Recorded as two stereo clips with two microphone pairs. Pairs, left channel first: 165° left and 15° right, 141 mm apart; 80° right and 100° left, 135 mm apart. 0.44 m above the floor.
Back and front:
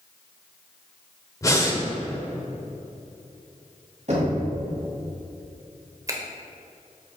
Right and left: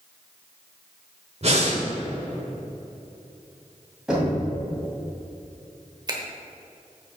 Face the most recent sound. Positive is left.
turn(degrees=45)